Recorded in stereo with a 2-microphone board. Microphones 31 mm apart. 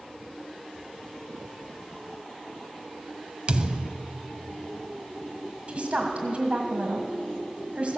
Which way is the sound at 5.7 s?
45° right (ahead or behind).